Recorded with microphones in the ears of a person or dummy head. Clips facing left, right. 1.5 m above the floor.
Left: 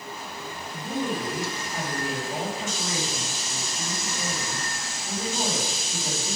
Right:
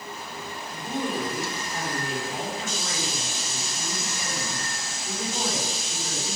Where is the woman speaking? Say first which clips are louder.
Left 1 dB; 30° left (ahead or behind), 3.5 m.